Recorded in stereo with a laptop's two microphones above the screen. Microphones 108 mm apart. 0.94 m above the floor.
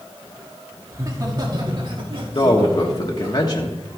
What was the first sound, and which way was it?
Laughter, 30° right (ahead or behind).